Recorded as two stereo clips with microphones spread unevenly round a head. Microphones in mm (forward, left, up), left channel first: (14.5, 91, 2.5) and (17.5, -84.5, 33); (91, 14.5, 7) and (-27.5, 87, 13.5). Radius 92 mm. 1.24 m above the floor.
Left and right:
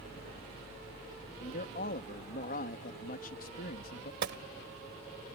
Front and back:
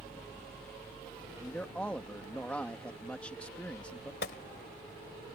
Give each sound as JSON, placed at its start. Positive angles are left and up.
{"t": 1.4, "sound": "a man speaking", "azimuth_deg": 50}
{"t": 4.2, "sound": "a gunshot", "azimuth_deg": -65}